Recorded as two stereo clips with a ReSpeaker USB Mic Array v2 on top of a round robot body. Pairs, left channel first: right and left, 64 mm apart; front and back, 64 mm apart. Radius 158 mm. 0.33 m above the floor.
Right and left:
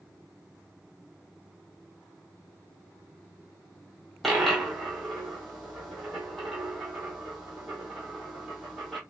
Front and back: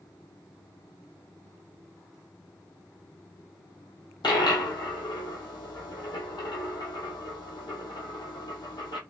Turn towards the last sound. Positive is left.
turn(degrees=-5)